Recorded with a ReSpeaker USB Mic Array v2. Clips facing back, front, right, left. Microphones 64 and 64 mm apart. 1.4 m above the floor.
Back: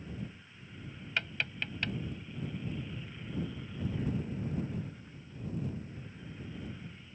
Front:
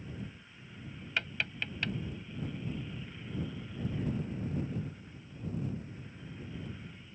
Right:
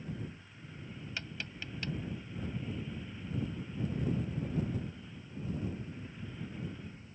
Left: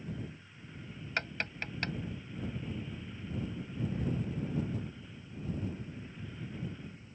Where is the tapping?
90° left.